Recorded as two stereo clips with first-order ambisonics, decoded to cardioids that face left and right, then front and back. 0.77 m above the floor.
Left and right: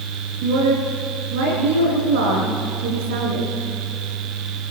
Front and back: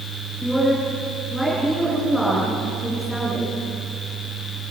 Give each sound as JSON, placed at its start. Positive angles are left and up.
{"t": 0.4, "sound": "a woman speaking", "azimuth_deg": -90, "distance_m": 10.0}